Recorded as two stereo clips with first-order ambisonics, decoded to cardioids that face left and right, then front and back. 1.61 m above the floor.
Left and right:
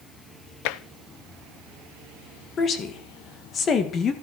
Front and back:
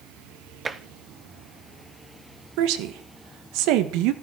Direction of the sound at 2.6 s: 155° left.